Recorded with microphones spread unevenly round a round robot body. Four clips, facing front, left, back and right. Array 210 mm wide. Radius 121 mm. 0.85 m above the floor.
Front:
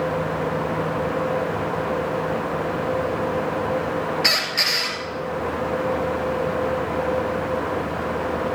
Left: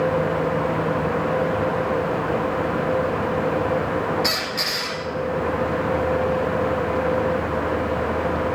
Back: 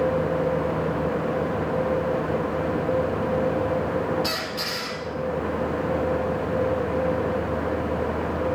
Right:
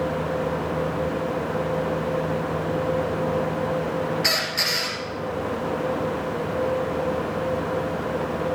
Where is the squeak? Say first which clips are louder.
Left 1 dB, front 3 dB; 25° right, 2.5 m.